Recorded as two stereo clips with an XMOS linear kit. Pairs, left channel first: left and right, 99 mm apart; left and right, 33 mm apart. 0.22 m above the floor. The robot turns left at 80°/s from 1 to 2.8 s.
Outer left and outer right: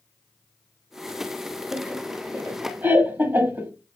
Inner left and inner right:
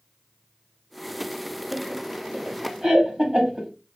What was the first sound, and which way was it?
Laughter, 5° right (ahead or behind).